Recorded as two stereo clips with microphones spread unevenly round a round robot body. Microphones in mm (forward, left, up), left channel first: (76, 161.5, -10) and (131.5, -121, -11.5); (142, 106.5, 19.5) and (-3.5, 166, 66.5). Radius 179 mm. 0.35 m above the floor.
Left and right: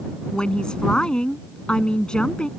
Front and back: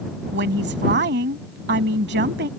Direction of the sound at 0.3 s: 170° right.